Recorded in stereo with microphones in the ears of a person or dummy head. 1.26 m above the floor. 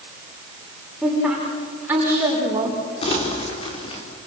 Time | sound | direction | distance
1.0 | a woman speaking | centre (ahead or behind) | 4 m
3.0 | crumpling | 35° left (ahead or behind) | 4.5 m